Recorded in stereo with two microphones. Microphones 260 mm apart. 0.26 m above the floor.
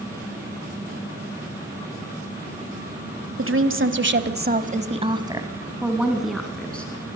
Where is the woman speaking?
50° right (ahead or behind), 1.4 m; by 7.2 s 5° left (ahead or behind), 2.5 m.